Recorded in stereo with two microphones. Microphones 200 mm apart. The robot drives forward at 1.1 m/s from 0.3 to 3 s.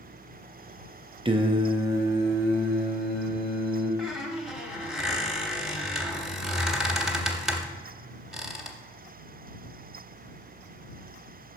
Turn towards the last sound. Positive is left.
turn(degrees=0)  # may be behind; listen again after turning